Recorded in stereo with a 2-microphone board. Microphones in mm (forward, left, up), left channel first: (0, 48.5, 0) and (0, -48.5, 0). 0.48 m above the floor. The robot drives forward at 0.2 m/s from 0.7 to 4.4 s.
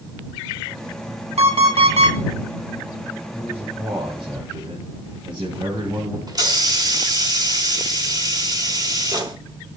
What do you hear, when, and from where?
1.4 s an alarm clock: 80° right, 2.5 m
3.3 s a man speaking: 50° right (ahead or behind), 4.5 m; by 6.2 s 55° right (ahead or behind), 4.5 m
6.3 s a hiss: 40° right (ahead or behind), 1.5 m